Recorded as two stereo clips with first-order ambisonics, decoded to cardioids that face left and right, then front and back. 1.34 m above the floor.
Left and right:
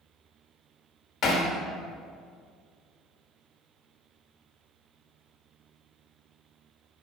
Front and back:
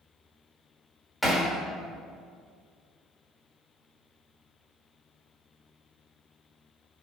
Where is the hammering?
95° left, 1.1 m.